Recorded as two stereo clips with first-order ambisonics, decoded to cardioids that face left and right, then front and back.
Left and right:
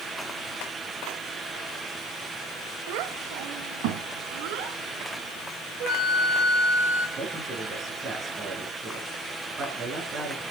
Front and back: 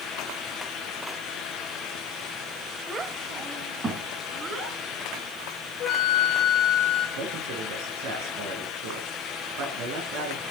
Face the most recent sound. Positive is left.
turn(degrees=-160)